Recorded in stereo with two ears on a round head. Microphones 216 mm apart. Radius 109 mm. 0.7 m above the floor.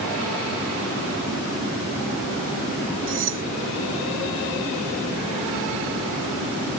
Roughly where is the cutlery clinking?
Right.